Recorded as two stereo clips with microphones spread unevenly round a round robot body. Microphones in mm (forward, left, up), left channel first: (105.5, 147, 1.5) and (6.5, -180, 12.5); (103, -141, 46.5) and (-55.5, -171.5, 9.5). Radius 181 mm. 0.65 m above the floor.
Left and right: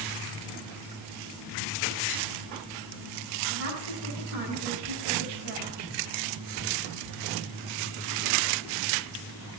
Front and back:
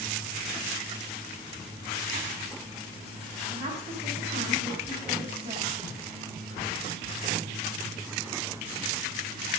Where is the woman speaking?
150° right, 5 m.